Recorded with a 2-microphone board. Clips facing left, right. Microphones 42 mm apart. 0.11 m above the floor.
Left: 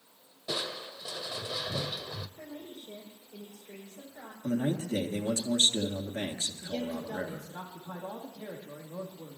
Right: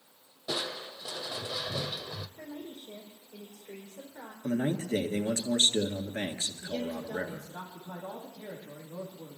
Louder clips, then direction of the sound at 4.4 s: Even; 45° right (ahead or behind).